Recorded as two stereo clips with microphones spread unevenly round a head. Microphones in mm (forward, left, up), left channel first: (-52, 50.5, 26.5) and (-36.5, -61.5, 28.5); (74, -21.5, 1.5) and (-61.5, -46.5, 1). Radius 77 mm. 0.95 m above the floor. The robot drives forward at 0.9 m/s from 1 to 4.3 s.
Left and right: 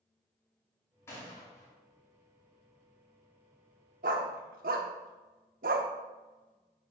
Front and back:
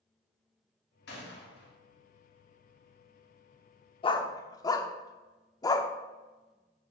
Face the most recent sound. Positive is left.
turn(degrees=-55)